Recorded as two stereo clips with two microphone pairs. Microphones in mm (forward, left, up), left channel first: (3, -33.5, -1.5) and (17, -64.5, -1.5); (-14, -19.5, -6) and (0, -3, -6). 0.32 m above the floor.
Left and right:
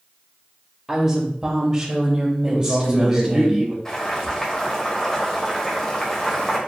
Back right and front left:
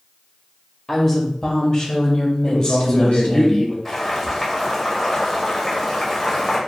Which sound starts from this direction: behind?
Boiling, at 3.9 s.